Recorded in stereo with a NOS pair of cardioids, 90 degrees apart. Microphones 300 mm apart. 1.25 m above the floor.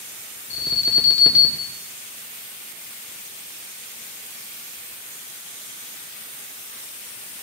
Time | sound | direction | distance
0.5 | an alarm | 40° left | 1.6 m